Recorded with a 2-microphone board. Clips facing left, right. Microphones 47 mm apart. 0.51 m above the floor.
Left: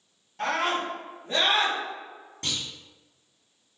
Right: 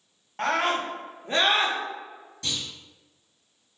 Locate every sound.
0.4 s a scream: 55° right (ahead or behind), 1.3 m; by 1.8 s 30° right (ahead or behind), 0.9 m
2.4 s a clunk: 50° left (ahead or behind), 1.6 m